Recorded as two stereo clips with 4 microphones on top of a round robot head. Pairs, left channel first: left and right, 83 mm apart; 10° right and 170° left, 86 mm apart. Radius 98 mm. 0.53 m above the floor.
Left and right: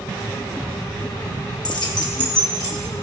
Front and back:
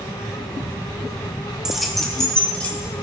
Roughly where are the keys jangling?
Left.